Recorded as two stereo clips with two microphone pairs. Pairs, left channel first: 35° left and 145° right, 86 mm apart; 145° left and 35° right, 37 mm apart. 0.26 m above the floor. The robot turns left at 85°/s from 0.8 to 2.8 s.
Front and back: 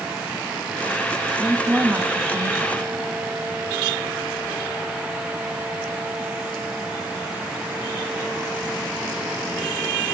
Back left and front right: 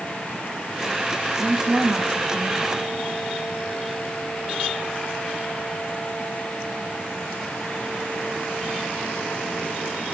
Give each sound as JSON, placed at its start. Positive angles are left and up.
{"t": 1.4, "sound": "a woman speaking", "azimuth_deg": -35, "distance_m": 2.5}